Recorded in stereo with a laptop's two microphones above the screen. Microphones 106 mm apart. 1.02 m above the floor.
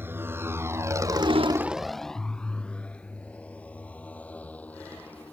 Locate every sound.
0.0 s a motorcycle: 20° right (ahead or behind); by 5.3 s 15° left (ahead or behind)